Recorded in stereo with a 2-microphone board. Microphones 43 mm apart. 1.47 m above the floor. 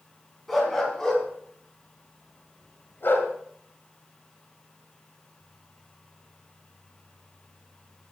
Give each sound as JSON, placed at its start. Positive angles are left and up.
{"t": 0.5, "sound": "a dog barking", "side_deg": 0, "distance_m": 4.5}